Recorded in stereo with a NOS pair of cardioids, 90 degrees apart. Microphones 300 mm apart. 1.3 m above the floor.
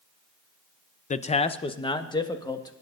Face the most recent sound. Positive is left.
turn(degrees=15)